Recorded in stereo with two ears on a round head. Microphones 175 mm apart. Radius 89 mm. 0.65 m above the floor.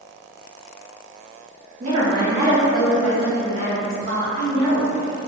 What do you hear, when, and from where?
1.8 s a woman speaking: 35° right (ahead or behind), 1.0 m; by 5.2 s 70° left (ahead or behind), 1.7 m